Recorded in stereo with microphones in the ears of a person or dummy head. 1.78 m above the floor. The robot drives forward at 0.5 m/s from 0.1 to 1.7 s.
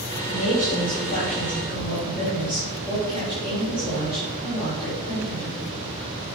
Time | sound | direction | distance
0.3 | a woman speaking | 40° left (ahead or behind) | 2 m